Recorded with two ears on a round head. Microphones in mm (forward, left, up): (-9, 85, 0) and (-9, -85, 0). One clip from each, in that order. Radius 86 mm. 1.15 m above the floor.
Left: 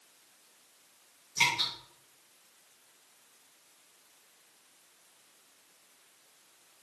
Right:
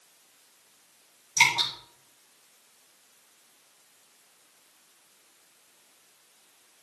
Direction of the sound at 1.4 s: 40° right (ahead or behind).